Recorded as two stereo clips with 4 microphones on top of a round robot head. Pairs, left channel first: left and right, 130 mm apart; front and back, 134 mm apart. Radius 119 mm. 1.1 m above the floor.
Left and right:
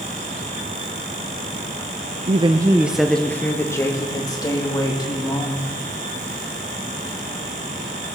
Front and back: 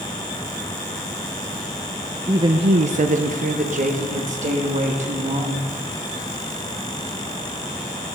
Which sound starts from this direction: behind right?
A woman speaking, at 2.3 s.